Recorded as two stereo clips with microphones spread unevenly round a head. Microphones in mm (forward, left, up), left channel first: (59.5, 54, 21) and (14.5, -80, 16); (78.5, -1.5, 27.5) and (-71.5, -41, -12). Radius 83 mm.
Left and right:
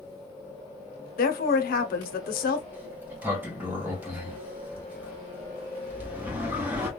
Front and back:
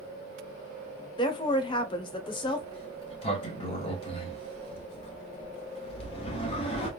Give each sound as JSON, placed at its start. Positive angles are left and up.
{"t": 1.2, "sound": "a woman speaking", "azimuth_deg": 85, "distance_m": 0.6}
{"t": 2.7, "sound": "a sliding door", "azimuth_deg": -30, "distance_m": 0.8}